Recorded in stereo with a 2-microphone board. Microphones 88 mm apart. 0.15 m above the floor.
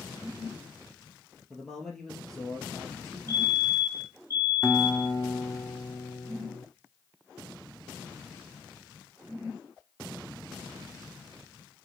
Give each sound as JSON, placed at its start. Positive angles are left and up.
{"t": 1.5, "sound": "a man speaking", "side_deg": 5, "distance_m": 3.0}
{"t": 3.3, "sound": "a fire alarm", "side_deg": 20, "distance_m": 5.0}
{"t": 4.6, "sound": "a guitar", "side_deg": 25, "distance_m": 1.6}